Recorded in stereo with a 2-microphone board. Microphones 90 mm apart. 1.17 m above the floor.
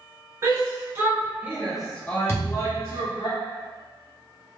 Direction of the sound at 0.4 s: 35° right (ahead or behind).